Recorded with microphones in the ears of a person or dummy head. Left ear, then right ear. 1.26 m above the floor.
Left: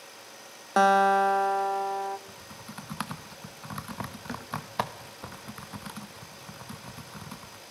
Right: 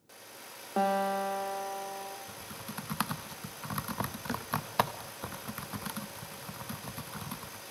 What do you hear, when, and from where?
0.8 s a guitar: 55° left (ahead or behind), 1.3 m
2.3 s typing on a keyboard: 5° right (ahead or behind), 1.1 m